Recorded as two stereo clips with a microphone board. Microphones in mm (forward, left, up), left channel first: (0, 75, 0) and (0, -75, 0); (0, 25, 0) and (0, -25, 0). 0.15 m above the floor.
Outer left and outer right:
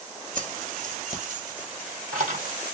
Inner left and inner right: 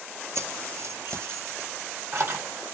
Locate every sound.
0.3 s keys jangling: 60° right (ahead or behind), 1.7 m; by 2.5 s 50° right (ahead or behind), 3 m